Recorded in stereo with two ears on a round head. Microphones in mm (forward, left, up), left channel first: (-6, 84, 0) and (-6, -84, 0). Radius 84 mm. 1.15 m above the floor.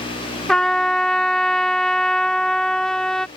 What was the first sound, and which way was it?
A trumpet, 5° left (ahead or behind).